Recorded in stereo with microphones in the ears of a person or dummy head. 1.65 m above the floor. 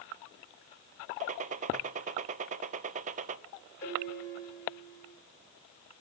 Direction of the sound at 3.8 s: 15° left (ahead or behind).